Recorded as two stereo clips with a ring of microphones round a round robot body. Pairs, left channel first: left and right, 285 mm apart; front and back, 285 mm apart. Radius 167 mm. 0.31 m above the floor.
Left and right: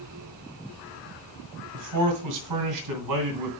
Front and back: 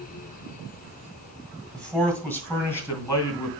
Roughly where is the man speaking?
Right.